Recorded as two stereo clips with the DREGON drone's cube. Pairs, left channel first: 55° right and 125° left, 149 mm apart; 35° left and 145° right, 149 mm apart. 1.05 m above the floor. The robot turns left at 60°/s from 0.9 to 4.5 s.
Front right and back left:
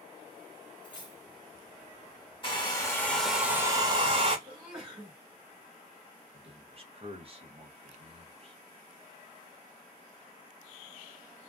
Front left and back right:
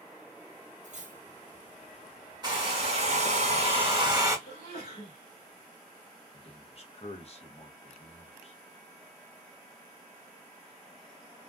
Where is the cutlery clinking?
110° right, 0.6 m; by 1.2 s 130° right, 0.6 m.